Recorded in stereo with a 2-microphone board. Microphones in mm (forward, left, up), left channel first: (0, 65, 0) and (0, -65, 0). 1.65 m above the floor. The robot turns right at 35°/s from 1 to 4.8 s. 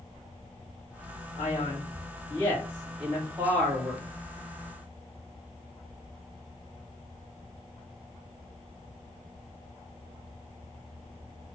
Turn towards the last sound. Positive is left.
turn(degrees=-115)